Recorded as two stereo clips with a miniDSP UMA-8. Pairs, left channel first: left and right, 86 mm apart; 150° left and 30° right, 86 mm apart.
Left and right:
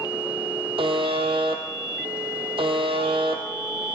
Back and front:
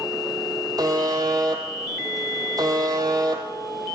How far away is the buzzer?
About 1.6 m.